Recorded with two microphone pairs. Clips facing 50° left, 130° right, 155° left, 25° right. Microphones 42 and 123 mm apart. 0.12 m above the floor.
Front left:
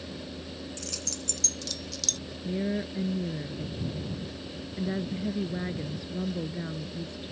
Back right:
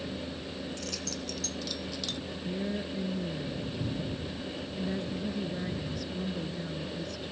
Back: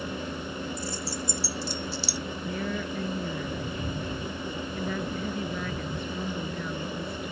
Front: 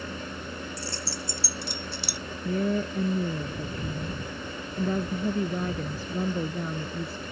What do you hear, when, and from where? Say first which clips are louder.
0.8 s keys jangling: back right 2 dB, back 2 dB; 40° right; by 2.2 s 55° right
2.5 s a woman speaking: front left 4 dB, front 7 dB; straight ahead